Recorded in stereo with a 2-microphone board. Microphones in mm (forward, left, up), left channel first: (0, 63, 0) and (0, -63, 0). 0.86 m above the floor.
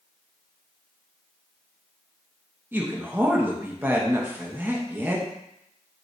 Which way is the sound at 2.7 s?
15° right (ahead or behind).